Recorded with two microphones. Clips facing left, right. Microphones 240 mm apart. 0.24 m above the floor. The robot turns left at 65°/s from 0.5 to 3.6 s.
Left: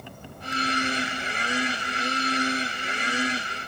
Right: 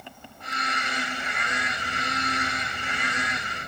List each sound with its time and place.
0.0 s an insect: 50° left; by 3.7 s 150° right